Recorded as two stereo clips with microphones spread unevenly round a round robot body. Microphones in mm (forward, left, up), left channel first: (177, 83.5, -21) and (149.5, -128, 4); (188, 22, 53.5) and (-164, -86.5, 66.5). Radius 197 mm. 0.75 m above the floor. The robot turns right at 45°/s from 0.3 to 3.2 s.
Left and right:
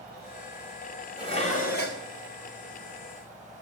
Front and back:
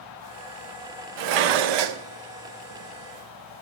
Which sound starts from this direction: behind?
Dishes clattering, at 1.2 s.